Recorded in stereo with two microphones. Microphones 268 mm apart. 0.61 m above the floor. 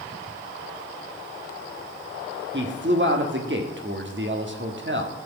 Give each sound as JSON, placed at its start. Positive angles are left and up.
{"t": 2.5, "sound": "a man speaking", "side_deg": -45, "distance_m": 1.5}